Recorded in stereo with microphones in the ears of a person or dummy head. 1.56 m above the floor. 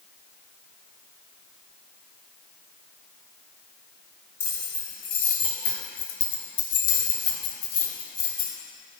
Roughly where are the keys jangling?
Left.